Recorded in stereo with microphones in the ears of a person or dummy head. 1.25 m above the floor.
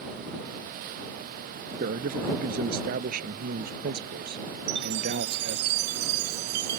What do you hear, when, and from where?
1.8 s a man speaking: 50° right (ahead or behind); by 5.7 s 55° right (ahead or behind)
4.7 s a chime: 60° right (ahead or behind)